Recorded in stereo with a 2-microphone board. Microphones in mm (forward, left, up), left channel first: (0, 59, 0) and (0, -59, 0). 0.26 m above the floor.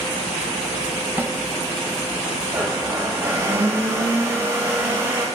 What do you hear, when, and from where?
1.2 s a snare drum: 15° right (ahead or behind), 1.2 m
2.5 s a blender: 25° right (ahead or behind), 6 m